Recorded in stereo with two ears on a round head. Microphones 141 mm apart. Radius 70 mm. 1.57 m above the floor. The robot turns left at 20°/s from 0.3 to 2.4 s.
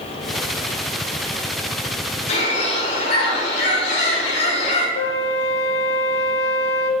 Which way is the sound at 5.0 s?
75° left (ahead or behind).